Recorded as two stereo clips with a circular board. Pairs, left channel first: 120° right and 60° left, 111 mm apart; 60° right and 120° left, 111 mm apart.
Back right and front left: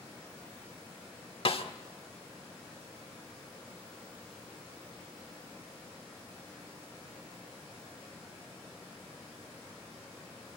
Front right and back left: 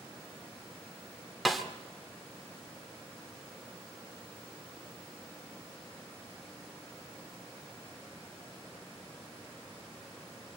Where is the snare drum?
150° right, 1.6 m.